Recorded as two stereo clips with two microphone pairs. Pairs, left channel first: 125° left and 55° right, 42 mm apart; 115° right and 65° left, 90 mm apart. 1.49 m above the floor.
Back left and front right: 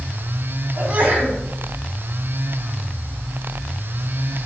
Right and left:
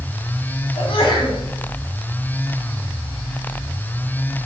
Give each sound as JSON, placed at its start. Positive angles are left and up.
{"t": 0.8, "sound": "a sneeze", "azimuth_deg": -105, "distance_m": 3.5}